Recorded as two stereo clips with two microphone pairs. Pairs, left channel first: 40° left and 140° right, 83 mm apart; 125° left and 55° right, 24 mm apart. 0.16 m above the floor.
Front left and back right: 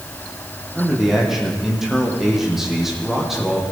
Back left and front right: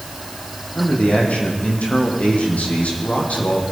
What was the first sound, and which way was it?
A man speaking, 135° left.